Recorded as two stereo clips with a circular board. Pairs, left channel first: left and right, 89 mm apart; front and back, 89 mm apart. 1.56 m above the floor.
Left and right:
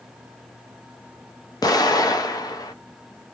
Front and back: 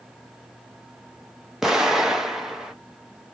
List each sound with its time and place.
1.6 s an explosion: 95° left, 0.6 m